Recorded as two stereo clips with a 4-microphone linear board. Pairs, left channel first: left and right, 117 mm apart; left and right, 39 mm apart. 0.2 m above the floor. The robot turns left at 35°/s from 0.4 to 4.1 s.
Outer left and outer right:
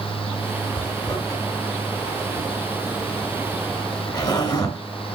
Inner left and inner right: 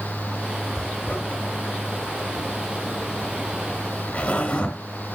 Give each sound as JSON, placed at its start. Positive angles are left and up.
{"t": 0.8, "sound": "a zipper", "side_deg": 20, "distance_m": 2.5}